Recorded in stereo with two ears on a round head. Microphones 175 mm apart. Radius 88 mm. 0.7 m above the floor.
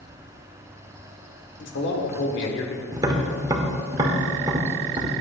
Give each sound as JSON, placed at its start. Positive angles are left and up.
{"t": 1.6, "sound": "a man speaking", "side_deg": 70, "distance_m": 1.8}
{"t": 2.9, "sound": "tapping", "side_deg": -20, "distance_m": 1.2}